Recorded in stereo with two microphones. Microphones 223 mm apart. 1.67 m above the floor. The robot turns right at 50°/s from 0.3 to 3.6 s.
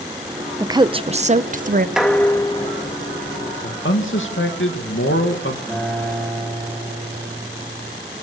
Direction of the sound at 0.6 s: 160° right.